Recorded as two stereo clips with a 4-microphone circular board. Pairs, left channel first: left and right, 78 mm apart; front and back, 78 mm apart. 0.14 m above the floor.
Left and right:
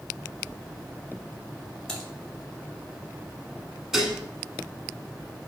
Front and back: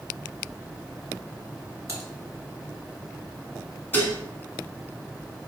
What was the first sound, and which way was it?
Typing on a keyboard, 170° left.